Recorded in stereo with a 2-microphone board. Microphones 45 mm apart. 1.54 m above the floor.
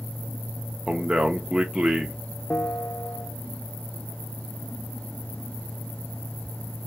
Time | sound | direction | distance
0.9 | a man speaking | 15° right (ahead or behind) | 0.9 m
2.5 | a bell | 30° left (ahead or behind) | 0.6 m